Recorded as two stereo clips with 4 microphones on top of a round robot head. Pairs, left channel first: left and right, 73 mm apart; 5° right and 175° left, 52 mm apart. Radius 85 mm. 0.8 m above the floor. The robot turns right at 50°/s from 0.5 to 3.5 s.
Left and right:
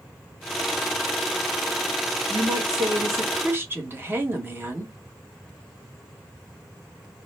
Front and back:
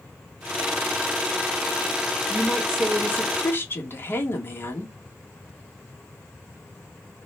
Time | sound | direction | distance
2.3 | a woman speaking | 95° right | 1.6 m